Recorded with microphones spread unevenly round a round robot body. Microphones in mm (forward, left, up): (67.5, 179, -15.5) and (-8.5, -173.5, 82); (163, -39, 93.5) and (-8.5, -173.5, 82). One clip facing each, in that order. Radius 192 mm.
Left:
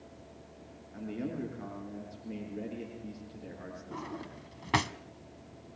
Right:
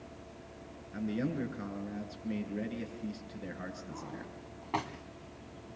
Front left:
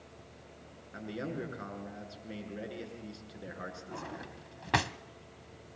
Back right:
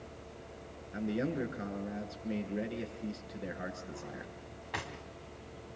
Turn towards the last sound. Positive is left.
turn(degrees=30)